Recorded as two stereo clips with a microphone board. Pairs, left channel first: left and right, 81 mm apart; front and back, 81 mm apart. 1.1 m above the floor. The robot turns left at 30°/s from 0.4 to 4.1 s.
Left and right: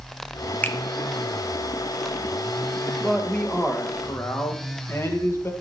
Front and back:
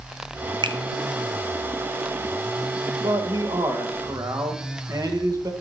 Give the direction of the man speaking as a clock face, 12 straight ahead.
6 o'clock.